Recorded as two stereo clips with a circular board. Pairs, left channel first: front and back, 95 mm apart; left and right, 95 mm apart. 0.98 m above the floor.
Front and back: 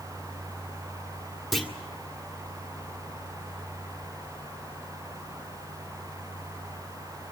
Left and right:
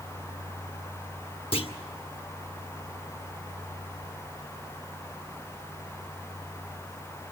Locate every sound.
1.5 s a clunk: 90° left, 1.7 m